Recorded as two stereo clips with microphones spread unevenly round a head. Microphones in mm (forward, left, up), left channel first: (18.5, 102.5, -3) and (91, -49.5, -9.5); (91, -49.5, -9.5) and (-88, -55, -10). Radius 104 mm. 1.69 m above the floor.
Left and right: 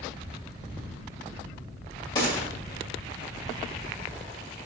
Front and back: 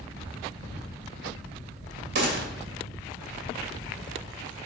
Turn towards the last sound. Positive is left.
turn(degrees=-175)